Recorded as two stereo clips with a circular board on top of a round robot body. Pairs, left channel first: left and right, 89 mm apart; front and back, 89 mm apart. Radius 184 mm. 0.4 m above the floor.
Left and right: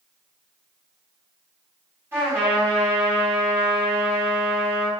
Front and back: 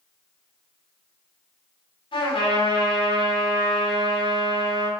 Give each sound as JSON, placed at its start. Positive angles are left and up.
{"t": 2.1, "sound": "a trumpet", "azimuth_deg": -25, "distance_m": 4.0}